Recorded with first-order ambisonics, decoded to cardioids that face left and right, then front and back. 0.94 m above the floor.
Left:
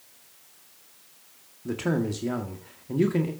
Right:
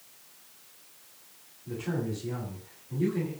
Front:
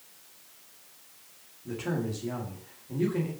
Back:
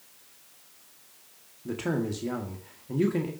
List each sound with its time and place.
1.6 s a man speaking: 120° left, 1.7 m